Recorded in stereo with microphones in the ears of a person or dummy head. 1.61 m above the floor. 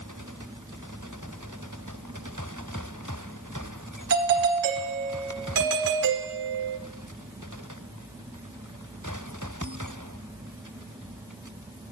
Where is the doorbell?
60° right (ahead or behind), 1.4 m.